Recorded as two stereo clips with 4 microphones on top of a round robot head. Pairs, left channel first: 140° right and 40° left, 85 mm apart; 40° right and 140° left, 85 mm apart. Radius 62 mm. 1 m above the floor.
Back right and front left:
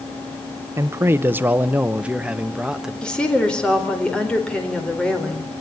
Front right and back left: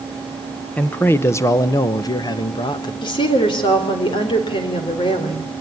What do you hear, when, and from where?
0.8 s a man speaking: 20° left, 0.9 m; by 2.9 s 45° right, 1.6 m
3.0 s a woman speaking: 60° right, 4 m